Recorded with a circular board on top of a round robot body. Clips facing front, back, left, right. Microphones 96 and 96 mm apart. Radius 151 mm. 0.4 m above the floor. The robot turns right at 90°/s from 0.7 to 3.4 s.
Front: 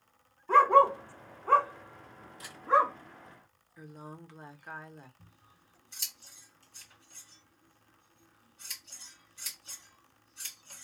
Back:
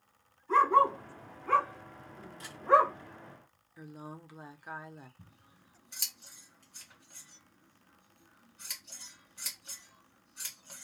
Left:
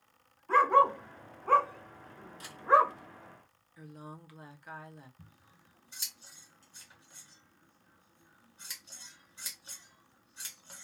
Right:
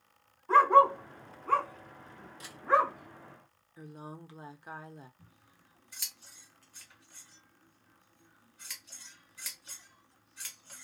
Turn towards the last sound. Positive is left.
turn(degrees=150)